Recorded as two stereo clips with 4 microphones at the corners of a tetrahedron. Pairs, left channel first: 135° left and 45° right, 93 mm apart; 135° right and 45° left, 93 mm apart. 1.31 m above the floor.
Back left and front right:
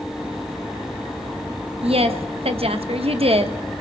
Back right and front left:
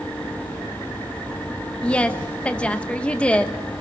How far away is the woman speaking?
About 1.2 m.